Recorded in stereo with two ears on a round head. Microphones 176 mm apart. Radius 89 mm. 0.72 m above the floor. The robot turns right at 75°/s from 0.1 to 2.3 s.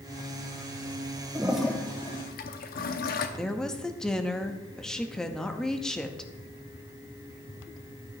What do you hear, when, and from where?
1.4 s a toilet flushing: 15° right (ahead or behind), 0.8 m; by 3.3 s 45° left (ahead or behind), 0.8 m
3.4 s a woman speaking: 5° left (ahead or behind), 0.8 m